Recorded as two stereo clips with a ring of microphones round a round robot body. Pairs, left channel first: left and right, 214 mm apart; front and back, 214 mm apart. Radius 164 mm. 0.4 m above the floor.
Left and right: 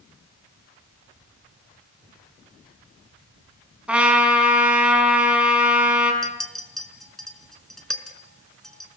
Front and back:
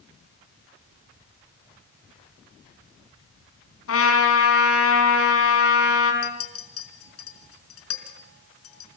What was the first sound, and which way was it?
A trumpet, 5° right.